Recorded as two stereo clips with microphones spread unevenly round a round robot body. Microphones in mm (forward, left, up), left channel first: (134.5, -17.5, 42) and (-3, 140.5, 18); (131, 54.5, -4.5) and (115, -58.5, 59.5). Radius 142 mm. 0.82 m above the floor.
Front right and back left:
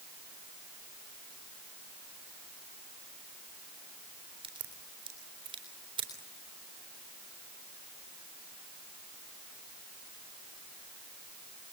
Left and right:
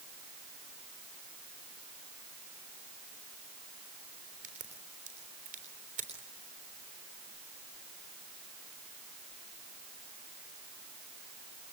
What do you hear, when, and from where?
4.4 s a crack: 160° right, 3.5 m